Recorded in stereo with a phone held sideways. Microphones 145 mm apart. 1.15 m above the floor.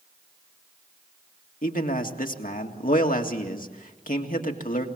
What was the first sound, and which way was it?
A man speaking, 70° left (ahead or behind).